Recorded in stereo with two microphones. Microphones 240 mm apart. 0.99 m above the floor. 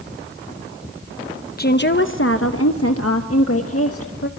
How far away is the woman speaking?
About 0.9 m.